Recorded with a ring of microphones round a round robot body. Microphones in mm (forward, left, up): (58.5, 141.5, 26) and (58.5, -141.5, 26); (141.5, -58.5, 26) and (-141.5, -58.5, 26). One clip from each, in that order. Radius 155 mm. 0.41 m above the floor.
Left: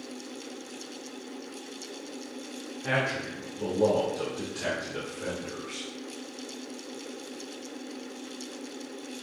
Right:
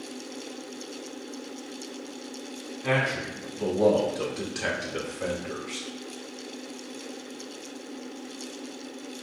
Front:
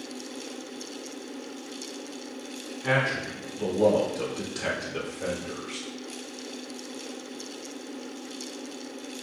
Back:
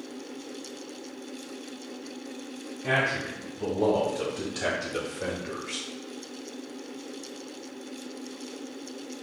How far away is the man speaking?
About 1.3 m.